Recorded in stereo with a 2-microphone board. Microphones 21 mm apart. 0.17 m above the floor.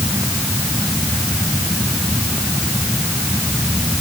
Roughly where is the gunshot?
I don't hear a gunshot.